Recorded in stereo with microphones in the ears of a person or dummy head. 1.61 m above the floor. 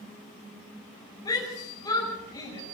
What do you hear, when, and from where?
1.2 s a shout: 20° left (ahead or behind), 7 m